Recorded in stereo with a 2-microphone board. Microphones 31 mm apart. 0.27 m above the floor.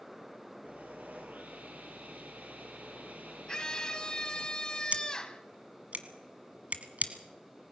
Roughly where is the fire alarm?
I don't hear a fire alarm.